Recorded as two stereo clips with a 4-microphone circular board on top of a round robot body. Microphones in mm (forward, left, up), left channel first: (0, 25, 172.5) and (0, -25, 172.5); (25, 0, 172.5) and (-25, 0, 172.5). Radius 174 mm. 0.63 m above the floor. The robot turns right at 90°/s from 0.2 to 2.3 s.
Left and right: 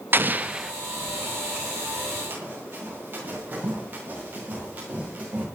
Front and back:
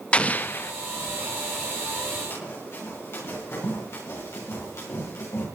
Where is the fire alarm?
No fire alarm in this recording.